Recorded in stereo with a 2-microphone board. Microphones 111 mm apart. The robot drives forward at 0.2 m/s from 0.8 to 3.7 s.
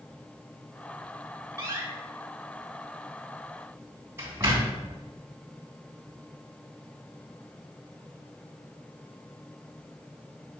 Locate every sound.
1.6 s a door slam: 30° right (ahead or behind), 2.5 m; by 4.9 s 25° right (ahead or behind), 3 m